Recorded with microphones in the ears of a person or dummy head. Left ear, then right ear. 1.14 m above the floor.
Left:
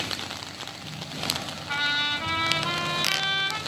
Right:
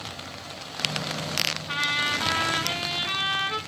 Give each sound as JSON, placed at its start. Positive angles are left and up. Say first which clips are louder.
{"t": 1.7, "sound": "a trumpet", "louder": "left 3 dB", "side_deg": -10, "distance_m": 0.6}